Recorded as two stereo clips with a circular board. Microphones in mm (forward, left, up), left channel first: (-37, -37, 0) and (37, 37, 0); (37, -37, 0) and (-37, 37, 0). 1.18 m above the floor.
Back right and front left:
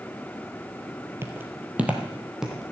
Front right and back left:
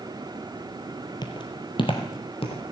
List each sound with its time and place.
1.2 s footsteps: 15° right, 1.8 m; by 2.7 s 40° right, 2.5 m